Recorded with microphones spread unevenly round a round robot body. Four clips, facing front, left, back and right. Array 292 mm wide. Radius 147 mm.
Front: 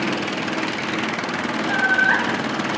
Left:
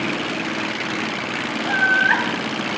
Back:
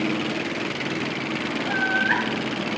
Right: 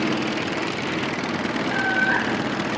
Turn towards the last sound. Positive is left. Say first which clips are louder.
# left 6 dB, front 5 dB
turn(degrees=65)